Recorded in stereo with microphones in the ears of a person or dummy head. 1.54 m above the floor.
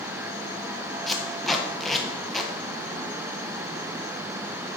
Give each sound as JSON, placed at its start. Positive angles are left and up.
{"t": 1.1, "sound": "tape being pulled", "side_deg": 5, "distance_m": 1.2}